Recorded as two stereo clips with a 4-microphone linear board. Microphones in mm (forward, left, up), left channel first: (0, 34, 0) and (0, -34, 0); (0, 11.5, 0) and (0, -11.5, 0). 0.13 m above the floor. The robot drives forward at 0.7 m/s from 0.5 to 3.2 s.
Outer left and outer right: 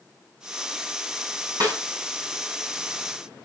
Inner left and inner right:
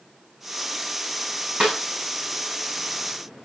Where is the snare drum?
65° right (ahead or behind), 6.5 m.